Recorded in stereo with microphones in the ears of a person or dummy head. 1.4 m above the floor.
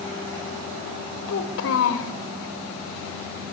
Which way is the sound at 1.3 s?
65° left (ahead or behind).